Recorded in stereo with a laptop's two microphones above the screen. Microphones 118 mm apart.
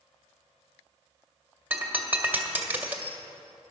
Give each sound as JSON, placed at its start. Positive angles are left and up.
{"t": 1.7, "sound": "breaking glass", "side_deg": -15, "distance_m": 1.7}